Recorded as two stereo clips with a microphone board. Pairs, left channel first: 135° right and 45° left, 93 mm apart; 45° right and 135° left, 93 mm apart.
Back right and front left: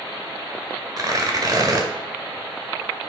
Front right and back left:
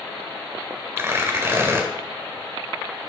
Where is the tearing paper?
80° left, 2 m.